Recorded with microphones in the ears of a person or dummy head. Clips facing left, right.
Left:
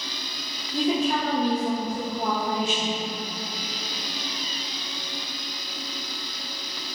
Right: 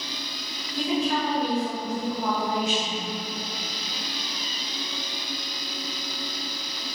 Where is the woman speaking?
30° left (ahead or behind), 0.7 m.